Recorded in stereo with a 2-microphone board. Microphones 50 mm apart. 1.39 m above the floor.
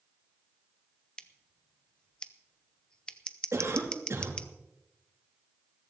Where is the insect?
I don't hear an insect.